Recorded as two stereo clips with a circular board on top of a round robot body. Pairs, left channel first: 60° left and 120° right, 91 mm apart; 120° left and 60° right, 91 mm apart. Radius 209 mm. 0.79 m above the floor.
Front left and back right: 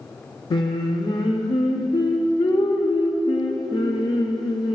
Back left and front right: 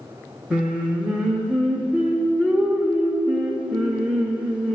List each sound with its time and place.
0.5 s singing: 20° left, 0.6 m